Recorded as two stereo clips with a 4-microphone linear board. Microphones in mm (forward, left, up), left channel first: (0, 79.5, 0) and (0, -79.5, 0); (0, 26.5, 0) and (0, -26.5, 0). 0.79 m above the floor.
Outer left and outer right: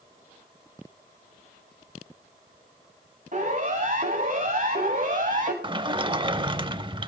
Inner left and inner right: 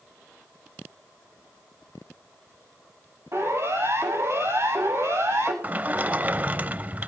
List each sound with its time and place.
3.3 s a siren: 60° right (ahead or behind), 7.5 m
5.6 s a sliding door: 30° right (ahead or behind), 0.6 m